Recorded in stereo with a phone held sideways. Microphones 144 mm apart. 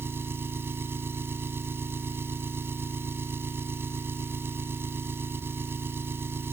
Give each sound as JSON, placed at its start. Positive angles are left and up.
{"t": 0.0, "sound": "an engine running", "side_deg": -15}